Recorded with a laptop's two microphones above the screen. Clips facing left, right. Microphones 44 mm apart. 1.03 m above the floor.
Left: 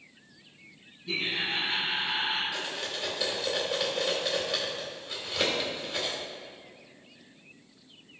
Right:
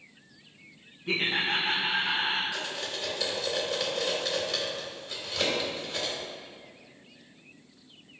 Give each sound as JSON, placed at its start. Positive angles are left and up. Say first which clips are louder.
{"t": 1.1, "sound": "laughter", "louder": "right 3 dB", "side_deg": -40, "distance_m": 1.1}
{"t": 2.5, "sound": "cutlery clinking", "louder": "even", "side_deg": 15, "distance_m": 2.0}